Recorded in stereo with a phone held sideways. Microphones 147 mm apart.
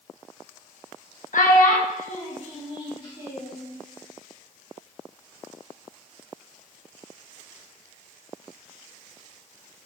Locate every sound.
1.3 s a child speaking: 70° left (ahead or behind), 0.7 m; by 3.6 s 30° left (ahead or behind), 2 m